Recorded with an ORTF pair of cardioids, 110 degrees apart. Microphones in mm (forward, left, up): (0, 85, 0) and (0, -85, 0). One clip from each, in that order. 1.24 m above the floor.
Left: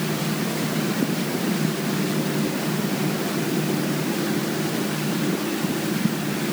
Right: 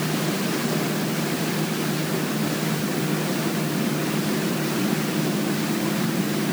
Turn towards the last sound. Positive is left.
No sound to turn to.